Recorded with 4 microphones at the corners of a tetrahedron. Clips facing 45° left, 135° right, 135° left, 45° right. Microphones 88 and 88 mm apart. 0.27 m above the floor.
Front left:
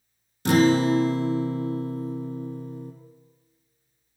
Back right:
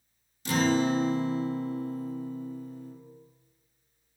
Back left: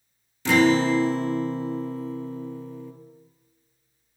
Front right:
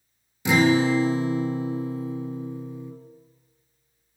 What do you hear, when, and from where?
0.5 s a guitar: 30° left, 0.8 m